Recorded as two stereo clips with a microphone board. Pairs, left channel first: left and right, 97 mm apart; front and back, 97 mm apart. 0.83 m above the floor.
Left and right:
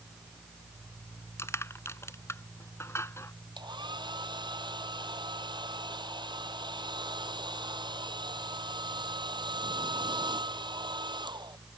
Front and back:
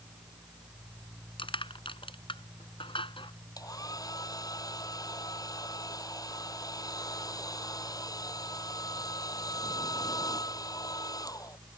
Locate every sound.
1.4 s crushing: 25° left
3.6 s a hair dryer: 50° right